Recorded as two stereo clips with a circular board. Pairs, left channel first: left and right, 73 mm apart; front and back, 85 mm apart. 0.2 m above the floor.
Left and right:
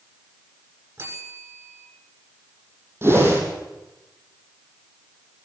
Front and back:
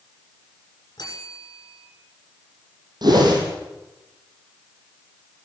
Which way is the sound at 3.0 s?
145° right.